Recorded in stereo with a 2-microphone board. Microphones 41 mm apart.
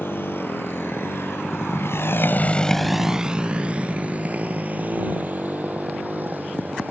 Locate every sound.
0.0 s a motorcycle: 65° left (ahead or behind); by 6.9 s 45° right (ahead or behind)